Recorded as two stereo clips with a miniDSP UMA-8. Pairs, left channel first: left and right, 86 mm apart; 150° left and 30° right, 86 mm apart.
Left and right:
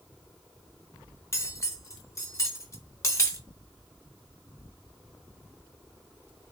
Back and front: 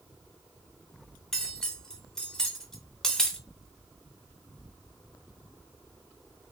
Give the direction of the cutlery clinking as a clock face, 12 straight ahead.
10 o'clock.